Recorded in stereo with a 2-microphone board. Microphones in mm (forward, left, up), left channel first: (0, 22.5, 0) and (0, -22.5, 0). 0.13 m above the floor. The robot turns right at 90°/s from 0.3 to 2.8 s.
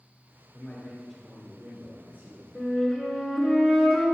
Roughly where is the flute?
Centre.